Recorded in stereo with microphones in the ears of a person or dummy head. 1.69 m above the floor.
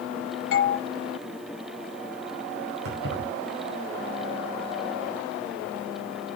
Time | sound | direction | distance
0.5 | a doorbell | 65° left (ahead or behind) | 1.8 m
2.9 | keys jangling | 80° right | 6 m